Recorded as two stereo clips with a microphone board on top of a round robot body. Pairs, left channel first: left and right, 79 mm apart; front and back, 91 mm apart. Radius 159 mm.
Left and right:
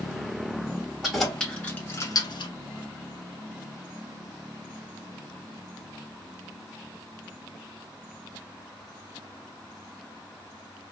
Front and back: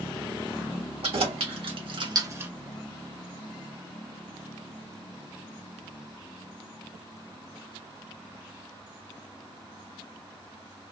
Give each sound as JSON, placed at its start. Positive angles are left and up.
{"t": 1.0, "sound": "keys jangling", "azimuth_deg": -175, "distance_m": 1.6}